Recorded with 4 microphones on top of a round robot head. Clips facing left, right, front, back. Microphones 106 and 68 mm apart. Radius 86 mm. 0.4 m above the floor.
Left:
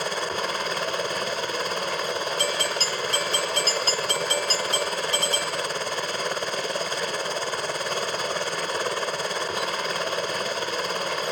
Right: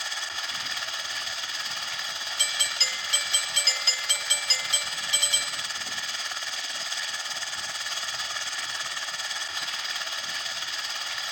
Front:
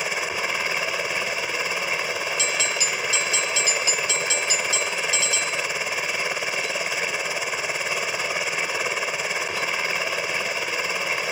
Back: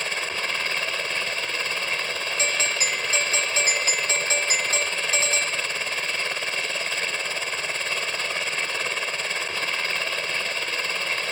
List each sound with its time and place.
0.0 s a helicopter: 75° left
2.4 s a doorbell: 135° left